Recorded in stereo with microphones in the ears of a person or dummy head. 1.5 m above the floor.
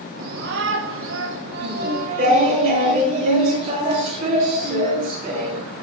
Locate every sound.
0.2 s a shout: 45° right (ahead or behind), 0.6 m; by 2.6 s 40° right (ahead or behind), 1.2 m
1.6 s singing: 35° right (ahead or behind), 4 m